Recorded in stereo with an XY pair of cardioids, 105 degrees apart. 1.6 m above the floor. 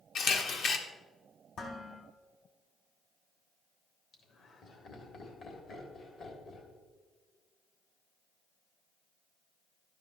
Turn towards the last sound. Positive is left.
turn(degrees=65)